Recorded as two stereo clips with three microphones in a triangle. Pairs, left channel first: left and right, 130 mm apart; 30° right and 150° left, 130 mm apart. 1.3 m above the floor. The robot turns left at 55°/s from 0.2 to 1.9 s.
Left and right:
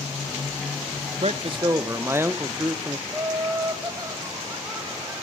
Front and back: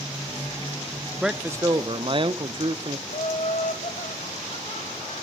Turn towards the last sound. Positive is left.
turn(degrees=-25)